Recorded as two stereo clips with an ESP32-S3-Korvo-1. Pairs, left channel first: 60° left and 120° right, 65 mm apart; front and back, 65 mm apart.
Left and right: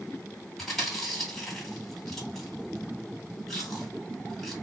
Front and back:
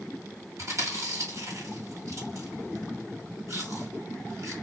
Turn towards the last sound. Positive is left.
turn(degrees=145)